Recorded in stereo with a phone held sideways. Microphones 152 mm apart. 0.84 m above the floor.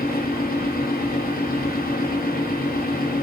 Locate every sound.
0.0 s a fan: 80° left, 0.7 m